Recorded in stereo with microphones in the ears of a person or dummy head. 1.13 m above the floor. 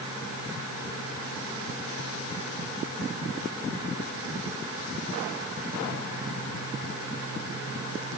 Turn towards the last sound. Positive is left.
No sound to turn to.